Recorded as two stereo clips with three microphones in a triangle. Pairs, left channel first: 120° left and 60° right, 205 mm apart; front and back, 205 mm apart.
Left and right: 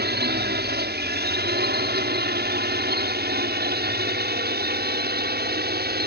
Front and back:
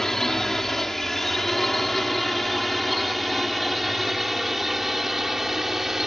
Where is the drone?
90° right.